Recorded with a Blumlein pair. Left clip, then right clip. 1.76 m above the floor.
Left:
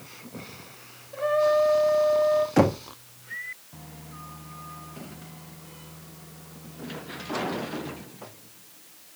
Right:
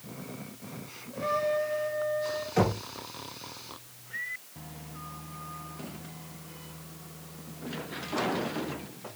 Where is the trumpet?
25° left, 2.5 m.